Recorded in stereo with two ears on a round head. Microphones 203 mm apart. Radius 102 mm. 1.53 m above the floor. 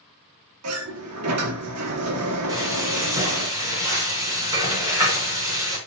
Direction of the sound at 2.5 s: 15° right (ahead or behind).